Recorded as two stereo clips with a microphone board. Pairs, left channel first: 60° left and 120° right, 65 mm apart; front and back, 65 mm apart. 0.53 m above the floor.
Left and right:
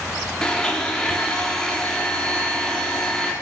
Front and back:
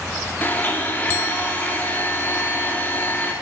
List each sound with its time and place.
0.4 s a blender: 10° right, 0.6 m